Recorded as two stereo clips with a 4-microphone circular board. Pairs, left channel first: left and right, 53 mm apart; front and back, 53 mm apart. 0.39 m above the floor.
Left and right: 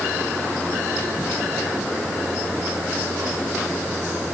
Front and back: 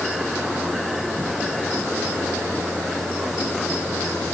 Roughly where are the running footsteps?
No running footsteps in this recording.